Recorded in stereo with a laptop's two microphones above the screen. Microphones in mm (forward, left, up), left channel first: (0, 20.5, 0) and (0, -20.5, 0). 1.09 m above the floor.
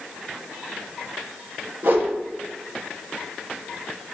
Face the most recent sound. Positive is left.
turn(degrees=-50)  # may be behind; listen again after turning